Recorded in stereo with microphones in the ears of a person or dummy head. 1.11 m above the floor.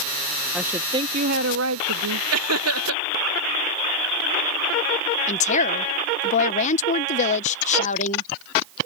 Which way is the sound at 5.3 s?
35° left (ahead or behind).